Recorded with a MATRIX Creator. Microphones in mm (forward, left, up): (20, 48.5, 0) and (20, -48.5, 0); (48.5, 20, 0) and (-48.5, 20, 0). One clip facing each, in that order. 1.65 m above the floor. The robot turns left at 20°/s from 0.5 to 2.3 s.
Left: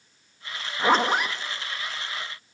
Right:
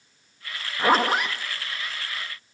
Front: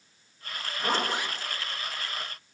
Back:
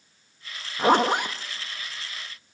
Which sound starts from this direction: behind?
A zipper, at 0.8 s.